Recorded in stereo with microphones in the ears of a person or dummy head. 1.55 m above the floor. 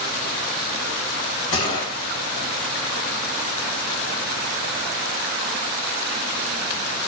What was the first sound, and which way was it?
A gunshot, 35° left (ahead or behind).